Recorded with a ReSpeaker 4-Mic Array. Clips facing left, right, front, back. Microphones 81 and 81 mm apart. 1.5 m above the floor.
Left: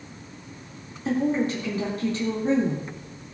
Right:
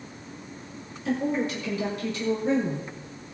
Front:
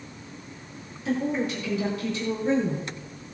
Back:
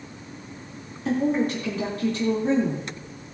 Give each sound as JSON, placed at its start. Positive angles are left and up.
{"t": 1.1, "sound": "a woman speaking", "azimuth_deg": 140, "distance_m": 3.5}